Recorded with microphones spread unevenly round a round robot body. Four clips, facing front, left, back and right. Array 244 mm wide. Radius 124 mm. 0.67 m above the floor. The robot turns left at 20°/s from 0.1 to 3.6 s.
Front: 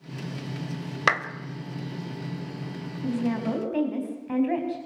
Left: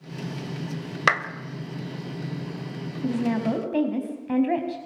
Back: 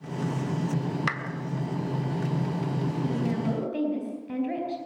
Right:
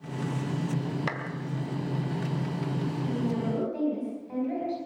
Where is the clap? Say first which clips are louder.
Left 11 dB, front 7 dB; 55° left, 2.5 m.